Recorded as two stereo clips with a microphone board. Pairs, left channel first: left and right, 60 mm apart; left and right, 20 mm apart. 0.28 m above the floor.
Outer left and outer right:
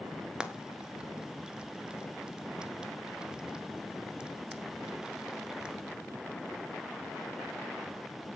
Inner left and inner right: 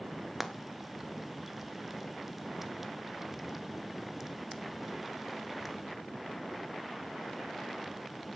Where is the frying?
15° right (ahead or behind), 1.4 m.